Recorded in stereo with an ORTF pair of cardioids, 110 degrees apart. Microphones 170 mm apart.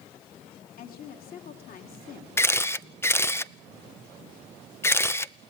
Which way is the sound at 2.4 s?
15° left.